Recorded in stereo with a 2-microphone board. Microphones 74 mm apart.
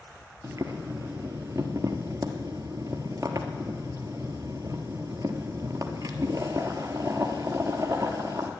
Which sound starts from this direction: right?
Boiling, at 0.4 s.